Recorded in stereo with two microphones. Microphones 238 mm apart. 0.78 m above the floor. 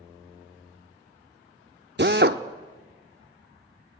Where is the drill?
45° right (ahead or behind), 0.9 m.